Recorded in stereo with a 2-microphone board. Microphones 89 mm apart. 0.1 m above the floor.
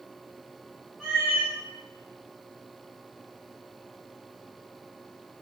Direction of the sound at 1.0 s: 10° right (ahead or behind).